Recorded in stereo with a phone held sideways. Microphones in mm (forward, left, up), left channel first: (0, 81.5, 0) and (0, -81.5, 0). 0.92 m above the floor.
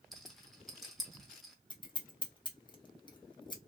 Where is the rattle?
Centre (ahead or behind), 0.8 m.